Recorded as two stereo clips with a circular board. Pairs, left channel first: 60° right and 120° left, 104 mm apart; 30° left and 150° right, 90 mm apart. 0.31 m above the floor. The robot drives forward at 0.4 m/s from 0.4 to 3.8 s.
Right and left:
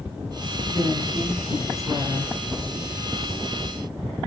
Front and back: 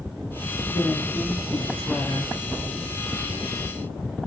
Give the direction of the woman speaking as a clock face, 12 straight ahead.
10 o'clock.